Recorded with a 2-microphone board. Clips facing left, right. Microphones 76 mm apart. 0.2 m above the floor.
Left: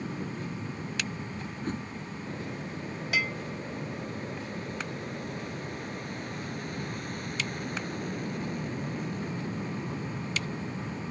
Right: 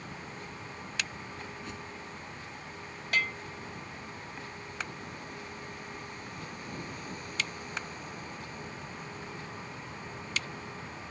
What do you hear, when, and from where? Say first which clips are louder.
0.0 s an aircraft: left 7 dB; 55° left (ahead or behind); by 11.1 s 65° left (ahead or behind)
1.6 s a whoosh: left 7 dB; 45° left (ahead or behind)
3.1 s a bell: even; 5° left (ahead or behind)